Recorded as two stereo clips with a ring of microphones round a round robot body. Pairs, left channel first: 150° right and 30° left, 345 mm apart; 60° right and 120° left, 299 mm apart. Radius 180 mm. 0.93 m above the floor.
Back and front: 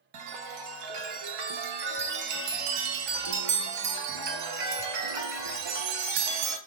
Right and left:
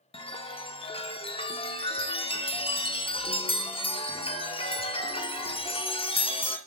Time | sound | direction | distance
0.1 | a chime | 10° left | 1.1 m